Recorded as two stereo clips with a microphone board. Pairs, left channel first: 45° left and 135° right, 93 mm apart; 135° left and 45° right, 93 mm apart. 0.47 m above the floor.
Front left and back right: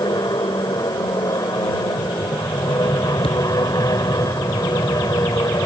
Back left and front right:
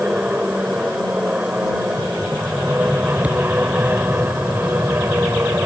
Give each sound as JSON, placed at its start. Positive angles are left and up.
{"t": 0.0, "sound": "an aircraft", "azimuth_deg": 25}
{"t": 3.2, "sound": "a thud", "azimuth_deg": 30}